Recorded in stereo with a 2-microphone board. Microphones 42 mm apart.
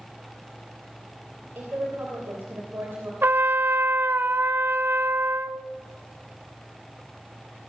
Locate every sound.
1.6 s a woman speaking: 65° right (ahead or behind), 3 m
3.2 s a trumpet: 60° right (ahead or behind), 0.6 m